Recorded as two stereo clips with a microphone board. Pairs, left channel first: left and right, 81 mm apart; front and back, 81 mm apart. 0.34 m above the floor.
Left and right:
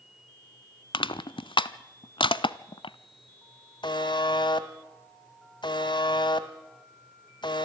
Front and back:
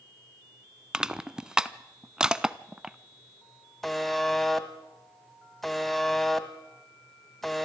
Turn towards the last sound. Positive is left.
turn(degrees=85)